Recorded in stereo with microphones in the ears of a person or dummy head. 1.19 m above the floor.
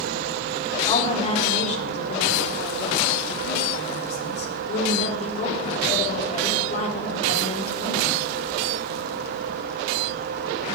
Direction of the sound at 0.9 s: 40° left (ahead or behind).